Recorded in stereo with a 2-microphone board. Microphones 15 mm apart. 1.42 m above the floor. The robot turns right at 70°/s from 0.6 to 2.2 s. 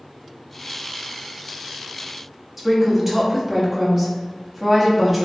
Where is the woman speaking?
Centre (ahead or behind), 0.8 m.